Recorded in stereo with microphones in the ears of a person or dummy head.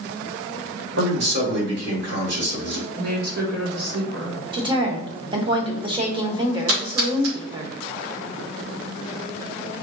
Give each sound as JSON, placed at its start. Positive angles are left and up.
{"t": 1.0, "sound": "a man speaking", "side_deg": -70, "distance_m": 2.5}
{"t": 3.0, "sound": "a woman speaking", "side_deg": -65, "distance_m": 1.3}
{"t": 4.5, "sound": "a woman speaking", "side_deg": -20, "distance_m": 0.9}
{"t": 6.7, "sound": "a splash", "side_deg": -80, "distance_m": 2.5}